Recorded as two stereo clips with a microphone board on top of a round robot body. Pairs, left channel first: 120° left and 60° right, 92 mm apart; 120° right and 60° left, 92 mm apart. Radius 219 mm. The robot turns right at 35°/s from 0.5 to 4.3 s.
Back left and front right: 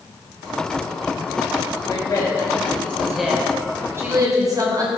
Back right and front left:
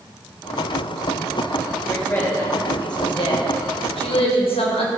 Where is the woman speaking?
160° left, 3.5 m; by 4.9 s 110° right, 3.5 m.